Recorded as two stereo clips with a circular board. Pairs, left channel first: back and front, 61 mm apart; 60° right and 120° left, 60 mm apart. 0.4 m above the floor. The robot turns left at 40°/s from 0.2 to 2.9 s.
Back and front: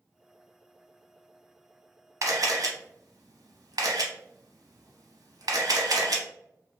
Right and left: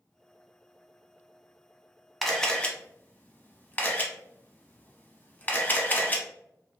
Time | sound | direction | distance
2.2 | a camera shutter | 30° left | 0.6 m